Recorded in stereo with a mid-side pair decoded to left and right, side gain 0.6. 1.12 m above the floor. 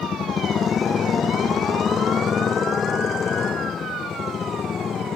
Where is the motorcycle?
35° left.